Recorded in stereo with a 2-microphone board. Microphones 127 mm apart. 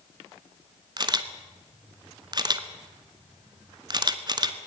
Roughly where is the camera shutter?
Right.